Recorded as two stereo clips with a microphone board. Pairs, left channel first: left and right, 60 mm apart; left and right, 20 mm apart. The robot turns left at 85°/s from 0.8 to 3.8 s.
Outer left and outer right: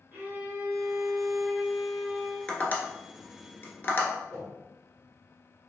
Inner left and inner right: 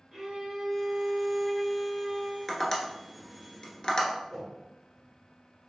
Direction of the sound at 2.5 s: 15° left (ahead or behind).